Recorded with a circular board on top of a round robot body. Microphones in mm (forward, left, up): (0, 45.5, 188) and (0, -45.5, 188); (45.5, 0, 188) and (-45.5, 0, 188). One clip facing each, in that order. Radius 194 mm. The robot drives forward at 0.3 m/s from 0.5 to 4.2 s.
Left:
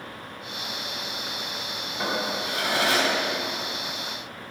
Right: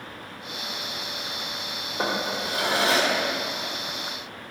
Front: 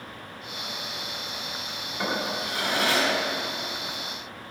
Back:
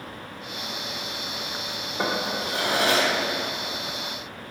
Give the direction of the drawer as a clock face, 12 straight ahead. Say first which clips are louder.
Right 1 dB, back 2 dB; 5 o'clock.